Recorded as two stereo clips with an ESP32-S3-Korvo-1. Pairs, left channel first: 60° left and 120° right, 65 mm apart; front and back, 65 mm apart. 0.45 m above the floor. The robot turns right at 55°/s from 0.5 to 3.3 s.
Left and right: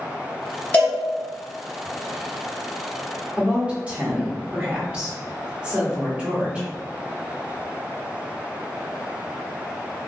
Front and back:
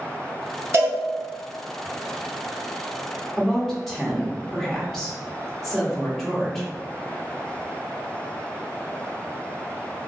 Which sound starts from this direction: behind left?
A cowbell, at 0.7 s.